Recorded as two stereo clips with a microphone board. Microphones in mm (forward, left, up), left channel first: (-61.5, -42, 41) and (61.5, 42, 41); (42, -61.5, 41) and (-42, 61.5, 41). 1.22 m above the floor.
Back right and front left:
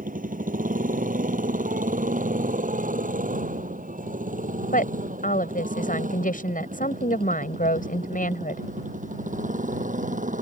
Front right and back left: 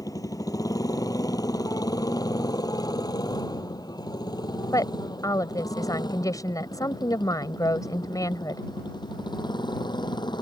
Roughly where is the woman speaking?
Behind right.